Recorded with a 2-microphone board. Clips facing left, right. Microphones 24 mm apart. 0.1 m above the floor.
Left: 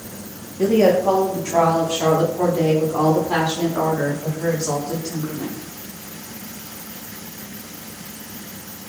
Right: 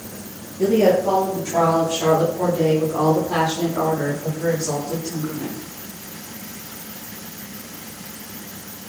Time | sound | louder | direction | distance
0.6 | a woman speaking | left 1 dB | 35° left (ahead or behind) | 5.5 m